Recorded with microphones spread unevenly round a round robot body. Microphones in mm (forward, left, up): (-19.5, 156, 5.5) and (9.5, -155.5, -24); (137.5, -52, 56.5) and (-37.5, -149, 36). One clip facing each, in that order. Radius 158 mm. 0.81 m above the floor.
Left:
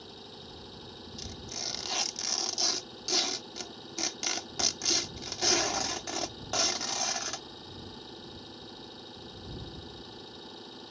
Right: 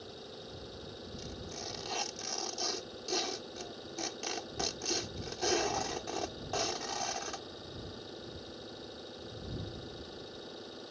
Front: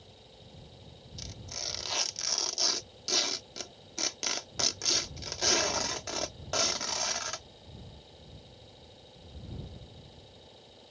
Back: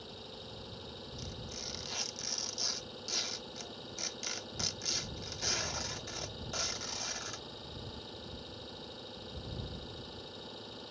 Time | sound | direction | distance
0.0 | an engine running | 170° left | ?
1.2 | tearing paper | 50° left | ?